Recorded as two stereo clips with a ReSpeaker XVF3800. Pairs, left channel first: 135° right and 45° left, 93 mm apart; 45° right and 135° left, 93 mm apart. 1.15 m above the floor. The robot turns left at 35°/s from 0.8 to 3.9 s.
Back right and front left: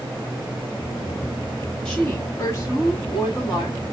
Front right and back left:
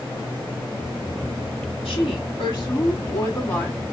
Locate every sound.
1.9 s a woman speaking: 55° right, 2 m; by 3.9 s 125° right, 2 m